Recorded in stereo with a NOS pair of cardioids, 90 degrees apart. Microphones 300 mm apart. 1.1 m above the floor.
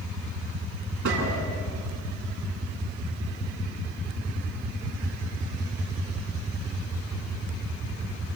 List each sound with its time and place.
1.1 s a gunshot: 70° right, 8.5 m